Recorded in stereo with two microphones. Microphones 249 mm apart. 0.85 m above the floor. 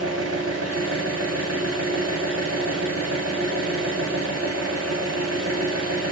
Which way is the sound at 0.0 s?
75° right (ahead or behind).